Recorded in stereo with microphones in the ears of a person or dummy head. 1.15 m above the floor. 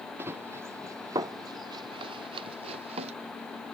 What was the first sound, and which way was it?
Running footsteps, 15° right (ahead or behind).